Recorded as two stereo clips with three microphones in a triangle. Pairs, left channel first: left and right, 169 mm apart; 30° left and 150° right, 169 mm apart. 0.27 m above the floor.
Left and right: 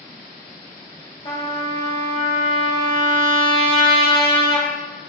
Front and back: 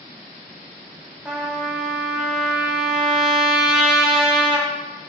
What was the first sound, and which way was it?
A trumpet, 125° left.